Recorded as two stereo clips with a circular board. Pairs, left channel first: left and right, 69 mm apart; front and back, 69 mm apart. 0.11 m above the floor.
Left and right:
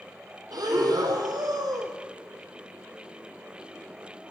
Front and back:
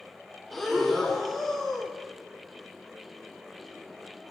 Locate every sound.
0.5 s breathing: 90° right, 0.6 m